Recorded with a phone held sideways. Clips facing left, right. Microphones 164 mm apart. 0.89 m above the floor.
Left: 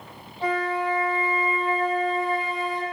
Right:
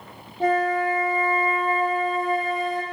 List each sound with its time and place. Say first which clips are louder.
0.4 s a flute: right 4 dB; 45° right (ahead or behind), 1.0 m